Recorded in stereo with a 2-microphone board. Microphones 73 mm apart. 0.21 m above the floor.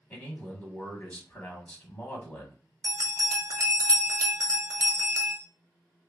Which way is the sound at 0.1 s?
20° left (ahead or behind).